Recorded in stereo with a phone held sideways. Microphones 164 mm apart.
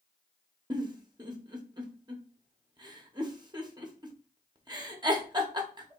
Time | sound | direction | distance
0.7 | a giggle | 25° right (ahead or behind) | 0.9 m